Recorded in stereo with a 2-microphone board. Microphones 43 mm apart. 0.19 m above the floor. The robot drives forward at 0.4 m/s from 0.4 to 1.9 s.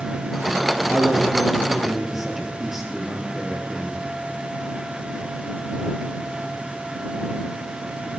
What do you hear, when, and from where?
0.9 s a man speaking: 10° right (ahead or behind), 3 m; by 4.0 s 5° right (ahead or behind), 3 m